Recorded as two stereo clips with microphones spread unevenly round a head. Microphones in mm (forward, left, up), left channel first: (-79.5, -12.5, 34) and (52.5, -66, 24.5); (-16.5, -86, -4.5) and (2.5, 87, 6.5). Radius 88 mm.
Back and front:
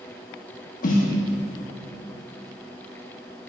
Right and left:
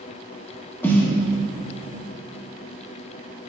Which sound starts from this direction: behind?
A snare drum, at 0.8 s.